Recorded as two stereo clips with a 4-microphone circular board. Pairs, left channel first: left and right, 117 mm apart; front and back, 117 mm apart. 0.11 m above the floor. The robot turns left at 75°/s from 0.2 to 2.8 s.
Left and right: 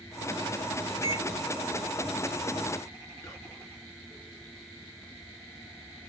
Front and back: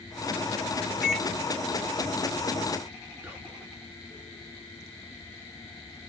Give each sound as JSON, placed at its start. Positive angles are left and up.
{"t": 1.0, "sound": "a microwave", "azimuth_deg": 100, "distance_m": 0.9}
{"t": 3.2, "sound": "whispering", "azimuth_deg": 130, "distance_m": 1.3}